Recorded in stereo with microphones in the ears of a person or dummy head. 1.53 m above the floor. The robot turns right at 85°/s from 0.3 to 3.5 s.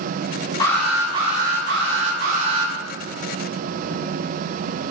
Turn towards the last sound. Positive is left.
turn(degrees=40)